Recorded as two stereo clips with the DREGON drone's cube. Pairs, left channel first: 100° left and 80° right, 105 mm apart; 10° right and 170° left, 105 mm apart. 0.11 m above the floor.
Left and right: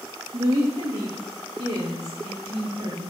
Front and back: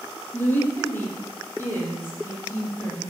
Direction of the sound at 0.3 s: 80° right.